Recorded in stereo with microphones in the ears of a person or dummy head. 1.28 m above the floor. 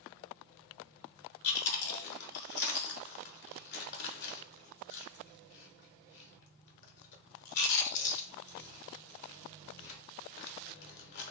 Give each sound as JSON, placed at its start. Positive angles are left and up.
{"t": 1.4, "sound": "chewing", "side_deg": 50, "distance_m": 1.0}